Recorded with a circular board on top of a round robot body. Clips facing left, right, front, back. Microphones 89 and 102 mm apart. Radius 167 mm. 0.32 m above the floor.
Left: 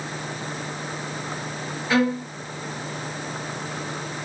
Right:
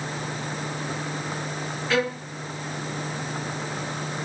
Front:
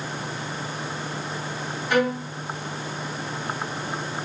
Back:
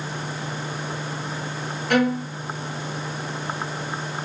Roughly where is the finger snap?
I don't hear a finger snap.